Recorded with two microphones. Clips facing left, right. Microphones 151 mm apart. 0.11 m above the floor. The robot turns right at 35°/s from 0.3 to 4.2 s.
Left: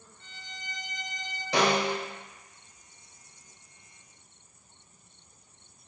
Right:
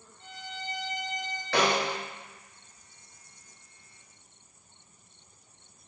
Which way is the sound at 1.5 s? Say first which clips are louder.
Left 1 dB; 20° left (ahead or behind).